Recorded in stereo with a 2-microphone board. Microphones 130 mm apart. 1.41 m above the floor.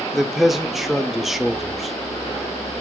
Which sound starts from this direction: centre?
A man speaking, at 0.1 s.